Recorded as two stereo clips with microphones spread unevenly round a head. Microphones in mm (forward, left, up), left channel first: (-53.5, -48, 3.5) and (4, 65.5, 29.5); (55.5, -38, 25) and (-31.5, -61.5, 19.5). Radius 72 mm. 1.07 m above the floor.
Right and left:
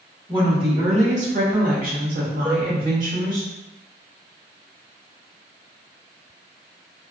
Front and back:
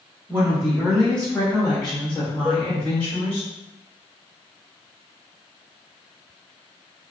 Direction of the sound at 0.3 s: 120° left.